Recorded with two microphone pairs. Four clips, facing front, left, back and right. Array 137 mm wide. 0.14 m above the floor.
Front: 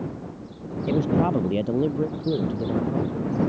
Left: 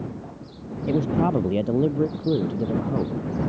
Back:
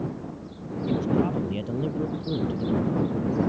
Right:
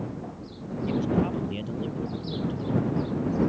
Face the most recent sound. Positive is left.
turn(degrees=70)